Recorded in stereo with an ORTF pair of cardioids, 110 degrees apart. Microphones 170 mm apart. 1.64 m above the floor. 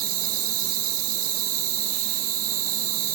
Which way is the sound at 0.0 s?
65° right.